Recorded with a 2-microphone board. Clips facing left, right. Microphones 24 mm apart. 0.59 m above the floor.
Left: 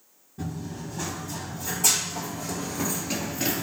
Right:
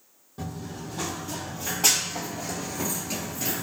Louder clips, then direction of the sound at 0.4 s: Left 1 dB; 65° right (ahead or behind).